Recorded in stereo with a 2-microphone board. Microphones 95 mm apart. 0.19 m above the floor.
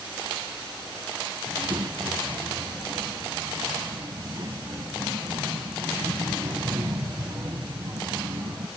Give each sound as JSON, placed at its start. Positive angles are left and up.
{"t": 1.4, "sound": "a child speaking", "side_deg": -40, "distance_m": 0.8}